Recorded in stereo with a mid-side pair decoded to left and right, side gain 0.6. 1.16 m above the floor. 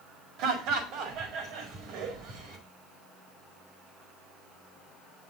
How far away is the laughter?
About 5 m.